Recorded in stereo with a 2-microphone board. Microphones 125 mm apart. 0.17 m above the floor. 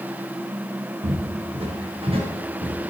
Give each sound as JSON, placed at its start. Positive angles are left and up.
{"t": 1.0, "sound": "footsteps", "side_deg": -50, "distance_m": 5.5}